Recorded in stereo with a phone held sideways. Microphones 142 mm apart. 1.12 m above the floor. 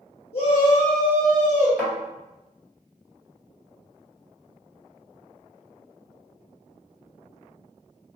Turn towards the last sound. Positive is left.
turn(degrees=-10)  # may be behind; listen again after turning